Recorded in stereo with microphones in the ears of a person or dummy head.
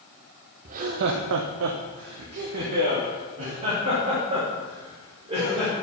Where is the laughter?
45° right (ahead or behind), 0.5 m; by 5.7 s 25° right (ahead or behind), 2.5 m.